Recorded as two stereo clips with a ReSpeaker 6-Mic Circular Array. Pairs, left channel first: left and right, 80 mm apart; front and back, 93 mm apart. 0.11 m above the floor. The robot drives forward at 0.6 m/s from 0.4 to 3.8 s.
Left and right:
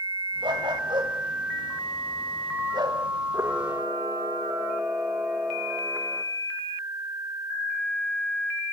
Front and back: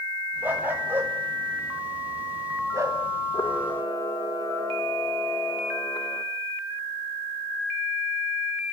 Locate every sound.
0.4 s a dog barking: 110° right, 5.5 m; by 3.0 s 120° right, 6 m
3.3 s a camera shutter: 40° right, 4.5 m